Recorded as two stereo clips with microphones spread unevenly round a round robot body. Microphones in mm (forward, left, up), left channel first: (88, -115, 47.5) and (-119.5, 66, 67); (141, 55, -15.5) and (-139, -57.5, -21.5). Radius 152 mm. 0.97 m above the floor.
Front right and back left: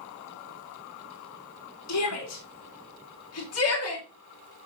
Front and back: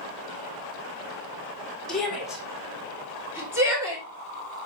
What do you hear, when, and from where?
1.9 s a shout: 65° right, 3 m; by 4.7 s 80° right, 4.5 m